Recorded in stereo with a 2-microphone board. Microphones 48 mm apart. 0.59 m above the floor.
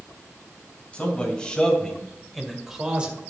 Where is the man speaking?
20° left (ahead or behind), 3.5 m; by 3.2 s 30° right (ahead or behind), 1.8 m.